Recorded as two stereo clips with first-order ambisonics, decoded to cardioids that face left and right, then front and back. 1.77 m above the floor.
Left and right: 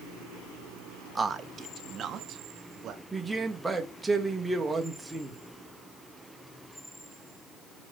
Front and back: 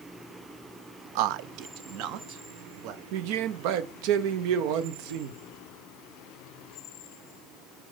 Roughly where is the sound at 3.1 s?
Behind.